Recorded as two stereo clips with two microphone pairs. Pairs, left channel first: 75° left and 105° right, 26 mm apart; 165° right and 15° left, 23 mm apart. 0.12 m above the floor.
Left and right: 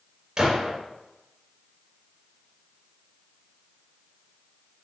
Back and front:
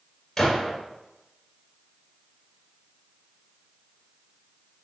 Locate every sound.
0.4 s a gunshot: 130° right, 1.5 m